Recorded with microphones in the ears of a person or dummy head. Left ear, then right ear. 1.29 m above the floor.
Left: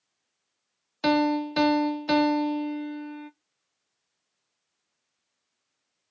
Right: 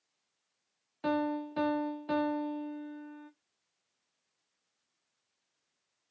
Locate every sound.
1.0 s a piano: 85° left, 0.6 m